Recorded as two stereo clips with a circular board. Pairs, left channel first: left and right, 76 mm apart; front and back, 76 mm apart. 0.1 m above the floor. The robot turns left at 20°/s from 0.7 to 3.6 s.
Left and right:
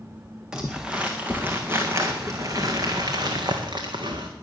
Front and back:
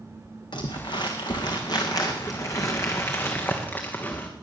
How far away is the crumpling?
About 2 m.